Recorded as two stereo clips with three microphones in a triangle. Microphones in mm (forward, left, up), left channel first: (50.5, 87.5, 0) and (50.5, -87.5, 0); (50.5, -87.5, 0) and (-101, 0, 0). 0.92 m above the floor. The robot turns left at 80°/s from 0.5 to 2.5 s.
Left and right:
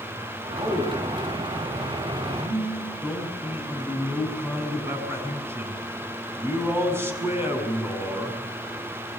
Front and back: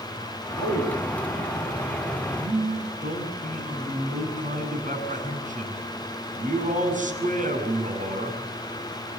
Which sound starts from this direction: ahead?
A man speaking, at 0.6 s.